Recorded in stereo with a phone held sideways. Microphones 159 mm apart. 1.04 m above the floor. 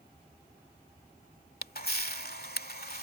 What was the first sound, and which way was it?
A camera shutter, 75° left (ahead or behind).